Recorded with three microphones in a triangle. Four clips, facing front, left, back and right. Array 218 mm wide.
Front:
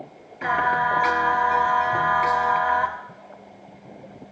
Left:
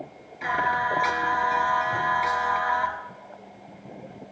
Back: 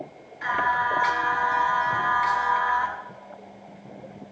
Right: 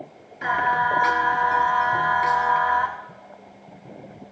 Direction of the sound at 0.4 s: 20° right.